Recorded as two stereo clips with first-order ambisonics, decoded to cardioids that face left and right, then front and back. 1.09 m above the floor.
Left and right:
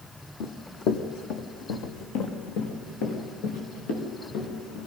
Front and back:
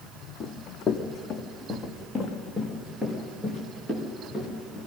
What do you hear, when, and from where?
0.4 s running footsteps: 55° left, 2.0 m; by 4.9 s 100° left, 7.5 m